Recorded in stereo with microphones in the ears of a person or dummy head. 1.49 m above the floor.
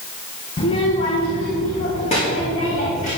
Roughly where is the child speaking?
Left.